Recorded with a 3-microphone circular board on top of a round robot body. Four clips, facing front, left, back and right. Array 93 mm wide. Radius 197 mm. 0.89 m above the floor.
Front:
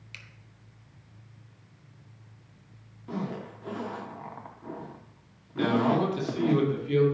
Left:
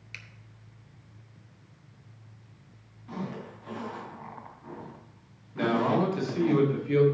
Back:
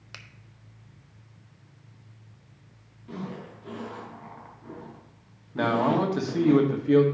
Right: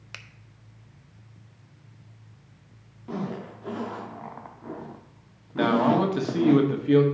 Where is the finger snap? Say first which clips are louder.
Right 3 dB, back 4 dB; 130° right, 0.7 m.